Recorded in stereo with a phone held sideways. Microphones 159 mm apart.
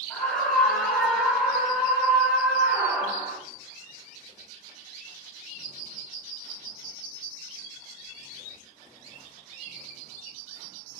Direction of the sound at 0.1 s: 5° left (ahead or behind).